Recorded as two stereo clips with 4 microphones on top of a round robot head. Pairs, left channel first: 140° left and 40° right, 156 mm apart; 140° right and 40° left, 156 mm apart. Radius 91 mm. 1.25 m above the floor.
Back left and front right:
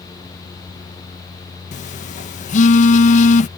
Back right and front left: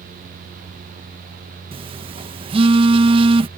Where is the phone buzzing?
95° left.